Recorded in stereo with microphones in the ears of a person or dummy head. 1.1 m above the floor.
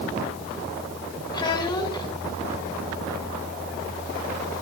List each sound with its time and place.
1.3 s a child speaking: 25° left (ahead or behind), 3 m